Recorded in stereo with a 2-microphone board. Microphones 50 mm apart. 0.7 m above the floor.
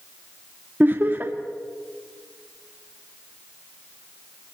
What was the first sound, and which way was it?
Laughter, 35° right (ahead or behind).